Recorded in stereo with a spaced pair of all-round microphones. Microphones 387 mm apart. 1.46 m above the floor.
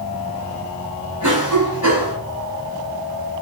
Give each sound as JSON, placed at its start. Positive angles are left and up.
{"t": 1.2, "sound": "a cough", "side_deg": -50, "distance_m": 9.5}